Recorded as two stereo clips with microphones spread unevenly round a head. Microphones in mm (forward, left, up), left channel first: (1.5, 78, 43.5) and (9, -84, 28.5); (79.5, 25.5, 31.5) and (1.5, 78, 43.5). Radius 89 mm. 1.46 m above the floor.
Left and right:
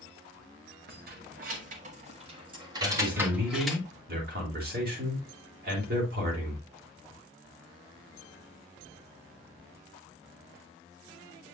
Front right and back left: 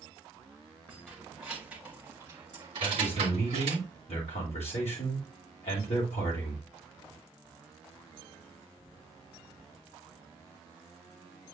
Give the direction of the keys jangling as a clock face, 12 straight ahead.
4 o'clock.